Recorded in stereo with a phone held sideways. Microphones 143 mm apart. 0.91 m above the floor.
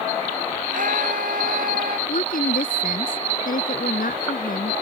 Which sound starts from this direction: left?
A woman speaking, at 2.1 s.